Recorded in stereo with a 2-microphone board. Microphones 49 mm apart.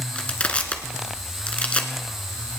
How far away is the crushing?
About 1.5 m.